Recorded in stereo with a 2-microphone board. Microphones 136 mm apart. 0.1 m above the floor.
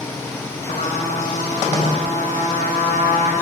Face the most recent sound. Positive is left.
turn(degrees=80)